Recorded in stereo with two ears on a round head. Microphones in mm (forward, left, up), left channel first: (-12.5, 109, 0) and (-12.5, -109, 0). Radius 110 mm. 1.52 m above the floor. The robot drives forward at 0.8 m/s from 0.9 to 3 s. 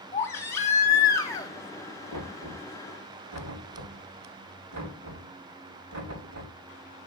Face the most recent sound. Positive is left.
turn(degrees=-80)